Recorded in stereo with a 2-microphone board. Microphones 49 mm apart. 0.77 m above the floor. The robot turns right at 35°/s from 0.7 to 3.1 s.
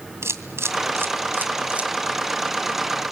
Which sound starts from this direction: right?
A camera shutter, at 0.2 s.